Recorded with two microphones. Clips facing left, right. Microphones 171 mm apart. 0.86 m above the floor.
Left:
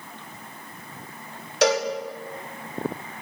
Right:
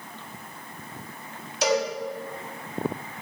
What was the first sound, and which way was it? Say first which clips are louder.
A cowbell: left 3 dB; 80° left.